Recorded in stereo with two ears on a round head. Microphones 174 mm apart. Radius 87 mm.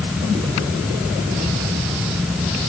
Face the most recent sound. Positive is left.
No sound to turn to.